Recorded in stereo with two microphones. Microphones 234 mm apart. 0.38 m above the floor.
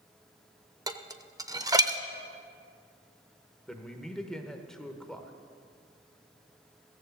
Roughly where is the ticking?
I don't hear ticking.